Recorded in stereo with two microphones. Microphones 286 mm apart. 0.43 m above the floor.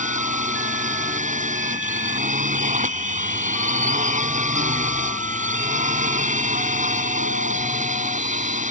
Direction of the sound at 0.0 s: 25° right (ahead or behind).